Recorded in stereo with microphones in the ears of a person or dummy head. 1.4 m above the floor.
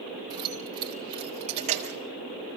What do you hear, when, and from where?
0.3 s keys jangling: 25° right (ahead or behind), 4 m; by 2.0 s 45° right (ahead or behind), 3.5 m